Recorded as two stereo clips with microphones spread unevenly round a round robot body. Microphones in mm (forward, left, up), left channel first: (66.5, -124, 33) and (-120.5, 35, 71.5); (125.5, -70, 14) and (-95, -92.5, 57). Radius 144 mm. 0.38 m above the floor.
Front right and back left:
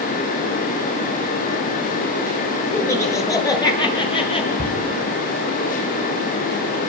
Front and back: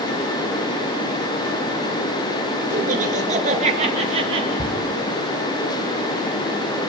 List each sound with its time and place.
2.7 s laughter: 120° right, 7.5 m; by 4.5 s 105° right, 7.5 m
4.6 s a shout: 75° left, 4 m